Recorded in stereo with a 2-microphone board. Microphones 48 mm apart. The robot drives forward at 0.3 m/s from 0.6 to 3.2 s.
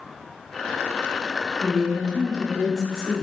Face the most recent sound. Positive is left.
turn(degrees=5)  # may be behind; listen again after turning